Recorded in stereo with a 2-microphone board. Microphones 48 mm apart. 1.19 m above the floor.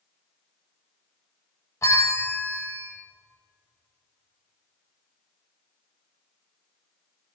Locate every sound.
1.8 s a bell: 70° left (ahead or behind), 0.8 m